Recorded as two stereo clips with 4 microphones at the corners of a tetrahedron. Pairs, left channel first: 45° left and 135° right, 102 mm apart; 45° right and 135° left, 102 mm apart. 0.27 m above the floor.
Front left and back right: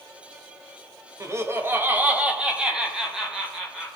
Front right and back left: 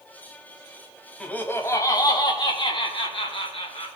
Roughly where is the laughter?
Behind right.